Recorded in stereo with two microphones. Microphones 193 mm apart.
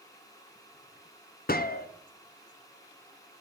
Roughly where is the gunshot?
Left.